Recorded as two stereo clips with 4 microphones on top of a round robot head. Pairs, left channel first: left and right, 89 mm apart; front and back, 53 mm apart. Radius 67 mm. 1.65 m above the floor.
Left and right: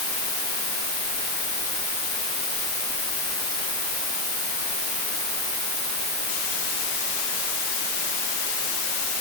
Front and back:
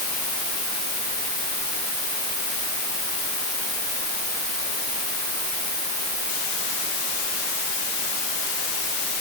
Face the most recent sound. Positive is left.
No sound to turn to.